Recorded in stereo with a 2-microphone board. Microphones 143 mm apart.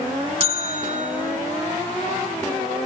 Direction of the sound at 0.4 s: 45° right (ahead or behind).